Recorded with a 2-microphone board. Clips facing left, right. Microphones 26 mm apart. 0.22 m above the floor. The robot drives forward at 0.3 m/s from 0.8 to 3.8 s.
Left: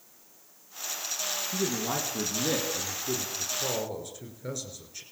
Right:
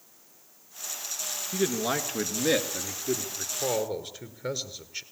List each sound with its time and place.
1.5 s a man speaking: 35° right (ahead or behind), 3 m; by 5.0 s 30° right (ahead or behind), 3.5 m